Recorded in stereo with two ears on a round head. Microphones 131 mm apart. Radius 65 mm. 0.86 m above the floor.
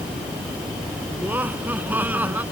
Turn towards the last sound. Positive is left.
turn(degrees=-10)  # may be behind; listen again after turning